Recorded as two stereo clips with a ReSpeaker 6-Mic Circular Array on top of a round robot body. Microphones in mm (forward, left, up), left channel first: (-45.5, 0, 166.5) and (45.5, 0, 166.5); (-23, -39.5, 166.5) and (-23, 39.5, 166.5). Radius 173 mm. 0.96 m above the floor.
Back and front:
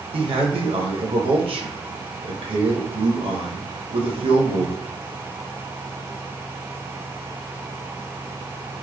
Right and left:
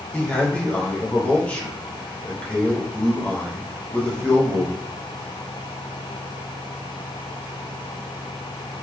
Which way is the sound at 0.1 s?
15° right.